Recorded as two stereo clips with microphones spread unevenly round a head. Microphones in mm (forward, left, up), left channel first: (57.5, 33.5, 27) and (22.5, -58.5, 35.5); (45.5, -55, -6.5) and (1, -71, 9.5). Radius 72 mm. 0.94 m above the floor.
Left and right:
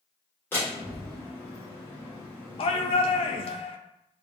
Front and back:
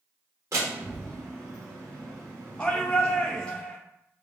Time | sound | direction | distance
0.5 | a door slam | 145° left | 1.4 m
2.6 | a shout | 90° left | 0.5 m